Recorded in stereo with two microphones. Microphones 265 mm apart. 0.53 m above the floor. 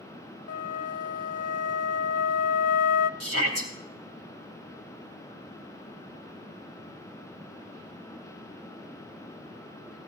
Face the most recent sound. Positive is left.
turn(degrees=-65)  # may be behind; listen again after turning